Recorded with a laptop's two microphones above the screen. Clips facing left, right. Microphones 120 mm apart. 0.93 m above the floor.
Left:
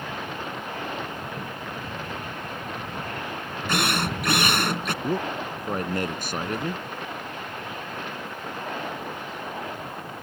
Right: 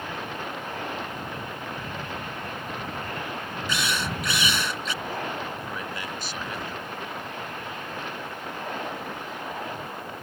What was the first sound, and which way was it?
A drill, 55° left (ahead or behind).